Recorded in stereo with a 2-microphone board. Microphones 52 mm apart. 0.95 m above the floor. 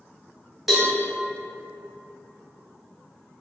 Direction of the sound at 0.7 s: 5° right (ahead or behind).